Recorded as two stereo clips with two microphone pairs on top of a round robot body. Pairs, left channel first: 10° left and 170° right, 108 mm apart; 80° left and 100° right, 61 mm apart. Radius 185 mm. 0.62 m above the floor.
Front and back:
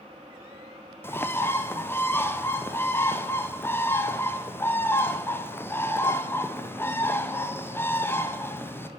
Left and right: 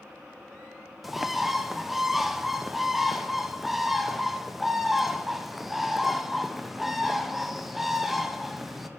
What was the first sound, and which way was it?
A bird, 15° right.